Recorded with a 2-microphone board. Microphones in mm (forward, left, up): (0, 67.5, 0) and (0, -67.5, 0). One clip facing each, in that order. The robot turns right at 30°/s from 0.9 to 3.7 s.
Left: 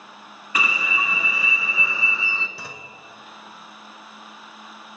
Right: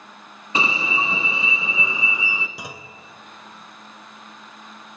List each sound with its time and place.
0.6 s an alarm: 30° right (ahead or behind), 0.9 m; by 2.5 s 15° right (ahead or behind), 0.9 m
2.6 s a clunk: 15° right (ahead or behind), 0.6 m; by 3.0 s 10° right (ahead or behind), 0.6 m